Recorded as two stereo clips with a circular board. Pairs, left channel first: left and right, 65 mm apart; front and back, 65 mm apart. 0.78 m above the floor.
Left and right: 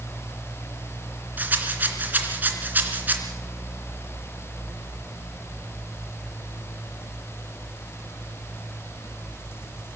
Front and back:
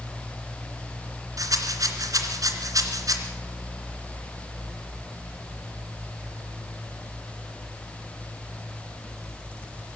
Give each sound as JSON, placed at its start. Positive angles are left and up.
{"t": 1.4, "sound": "a rattle", "azimuth_deg": -150, "distance_m": 2.5}